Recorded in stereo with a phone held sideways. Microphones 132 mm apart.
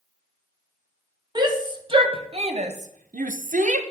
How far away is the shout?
About 1.4 m.